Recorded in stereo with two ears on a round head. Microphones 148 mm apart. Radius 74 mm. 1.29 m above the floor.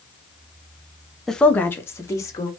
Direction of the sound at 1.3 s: Centre (ahead or behind).